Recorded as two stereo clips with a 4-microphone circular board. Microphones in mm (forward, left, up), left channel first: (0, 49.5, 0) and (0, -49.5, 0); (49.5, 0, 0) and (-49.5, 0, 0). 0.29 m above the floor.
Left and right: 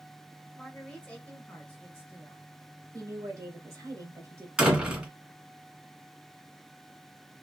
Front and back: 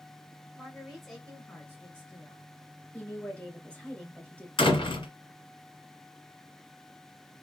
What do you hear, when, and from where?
0.6 s a woman speaking: 160° left, 0.9 m; by 2.5 s 25° left, 1.3 m
2.9 s a woman speaking: 65° right, 1.4 m
4.6 s a door slam: 10° right, 1.8 m